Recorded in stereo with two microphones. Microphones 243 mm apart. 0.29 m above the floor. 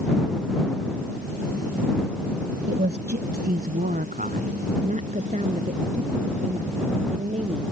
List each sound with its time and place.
2.7 s a woman speaking: 40° right (ahead or behind); by 7.6 s 25° right (ahead or behind)